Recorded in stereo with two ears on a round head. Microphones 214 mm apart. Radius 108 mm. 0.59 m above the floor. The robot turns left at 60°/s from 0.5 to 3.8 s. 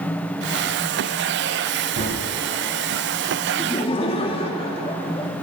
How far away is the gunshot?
About 3.5 m.